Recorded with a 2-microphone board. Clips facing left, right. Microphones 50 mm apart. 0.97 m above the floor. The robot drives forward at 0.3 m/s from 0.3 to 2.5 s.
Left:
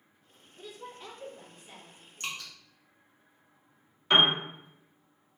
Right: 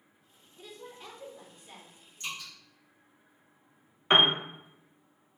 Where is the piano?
30° right (ahead or behind), 0.7 m.